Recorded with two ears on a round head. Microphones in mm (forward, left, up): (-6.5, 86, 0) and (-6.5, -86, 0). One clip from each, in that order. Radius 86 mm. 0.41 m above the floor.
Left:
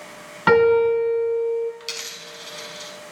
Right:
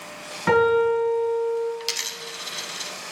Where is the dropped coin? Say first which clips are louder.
Right 3 dB; 25° right (ahead or behind), 0.5 m.